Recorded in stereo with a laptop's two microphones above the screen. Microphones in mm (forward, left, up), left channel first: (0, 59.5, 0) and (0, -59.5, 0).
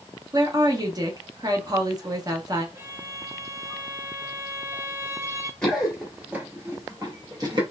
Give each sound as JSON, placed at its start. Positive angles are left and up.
{"t": 0.3, "sound": "a woman speaking", "side_deg": -30, "distance_m": 0.6}
{"t": 2.8, "sound": "a violin", "side_deg": -20, "distance_m": 0.7}
{"t": 5.6, "sound": "running footsteps", "side_deg": 5, "distance_m": 1.1}